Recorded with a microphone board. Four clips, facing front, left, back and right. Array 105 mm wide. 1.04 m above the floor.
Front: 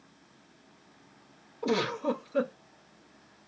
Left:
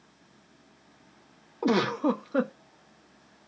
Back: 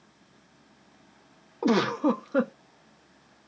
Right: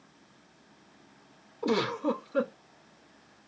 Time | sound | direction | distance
1.6 | a giggle | 140° left | 0.6 m